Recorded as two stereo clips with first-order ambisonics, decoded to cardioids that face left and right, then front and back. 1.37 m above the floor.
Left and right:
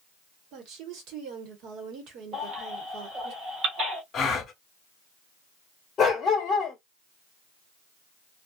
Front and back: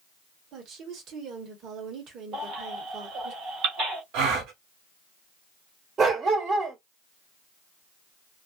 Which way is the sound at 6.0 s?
140° left.